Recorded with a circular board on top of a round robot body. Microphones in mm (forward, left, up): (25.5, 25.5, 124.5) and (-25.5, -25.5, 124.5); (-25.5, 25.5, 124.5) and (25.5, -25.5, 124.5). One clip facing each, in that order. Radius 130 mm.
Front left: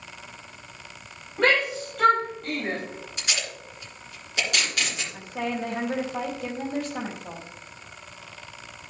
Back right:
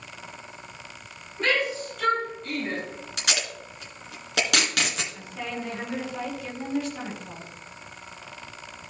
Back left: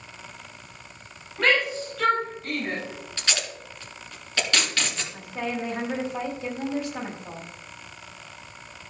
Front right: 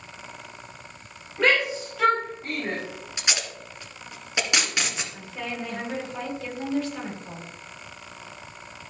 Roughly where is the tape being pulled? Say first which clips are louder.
Back right 3 dB, even; behind right.